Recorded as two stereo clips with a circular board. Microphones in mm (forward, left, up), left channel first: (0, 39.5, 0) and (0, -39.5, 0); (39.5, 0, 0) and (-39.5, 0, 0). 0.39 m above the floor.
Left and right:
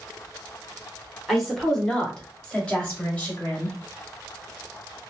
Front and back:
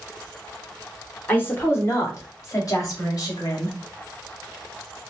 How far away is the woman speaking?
About 1.1 m.